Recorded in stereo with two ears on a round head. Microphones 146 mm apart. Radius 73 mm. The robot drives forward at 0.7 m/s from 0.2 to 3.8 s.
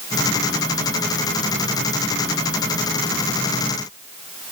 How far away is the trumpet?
I don't hear a trumpet.